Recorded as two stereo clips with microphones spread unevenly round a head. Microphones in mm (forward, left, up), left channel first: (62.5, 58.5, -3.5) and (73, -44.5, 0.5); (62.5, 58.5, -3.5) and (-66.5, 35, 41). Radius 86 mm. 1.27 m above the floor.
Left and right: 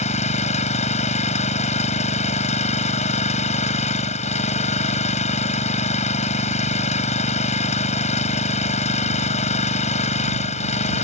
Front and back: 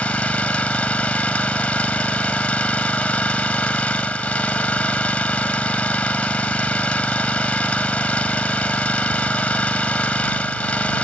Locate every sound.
0.0 s an engine running: 95° left